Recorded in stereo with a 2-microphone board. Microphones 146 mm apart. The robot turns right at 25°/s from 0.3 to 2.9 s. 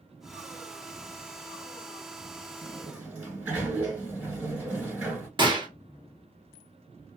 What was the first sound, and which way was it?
A sliding door, 5° right (ahead or behind).